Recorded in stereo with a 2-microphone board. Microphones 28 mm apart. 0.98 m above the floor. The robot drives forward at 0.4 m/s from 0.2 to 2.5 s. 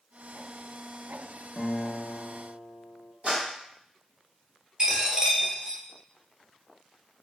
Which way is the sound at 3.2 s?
45° right (ahead or behind).